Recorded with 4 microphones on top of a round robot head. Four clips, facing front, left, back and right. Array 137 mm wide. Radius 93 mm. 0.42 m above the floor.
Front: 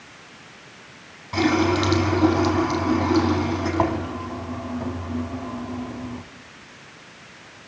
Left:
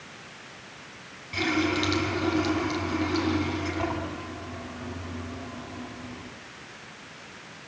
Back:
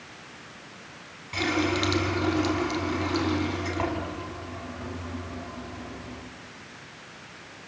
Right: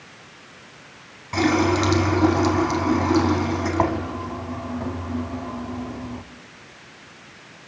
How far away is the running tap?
About 2.5 m.